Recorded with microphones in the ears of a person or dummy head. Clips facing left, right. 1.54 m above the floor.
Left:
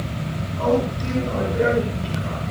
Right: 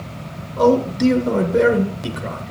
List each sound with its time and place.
0.6 s a man speaking: 80° right, 7.5 m; by 2.5 s 60° right (ahead or behind), 8 m